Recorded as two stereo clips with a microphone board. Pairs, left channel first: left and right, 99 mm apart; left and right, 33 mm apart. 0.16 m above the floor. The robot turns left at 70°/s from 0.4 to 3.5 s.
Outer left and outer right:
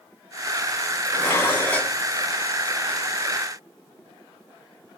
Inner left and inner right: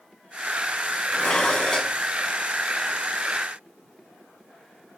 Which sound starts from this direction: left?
Dishes clattering, at 1.1 s.